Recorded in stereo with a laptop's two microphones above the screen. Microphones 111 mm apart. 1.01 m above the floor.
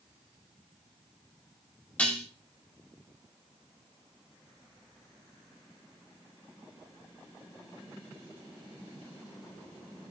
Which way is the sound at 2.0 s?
15° left (ahead or behind).